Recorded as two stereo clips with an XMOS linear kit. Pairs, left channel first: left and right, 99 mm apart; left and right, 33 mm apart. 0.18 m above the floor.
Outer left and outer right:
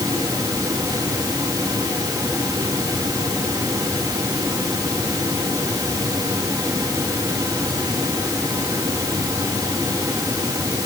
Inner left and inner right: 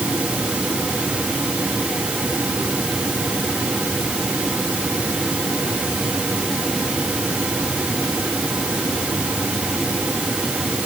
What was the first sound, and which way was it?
Only background noise.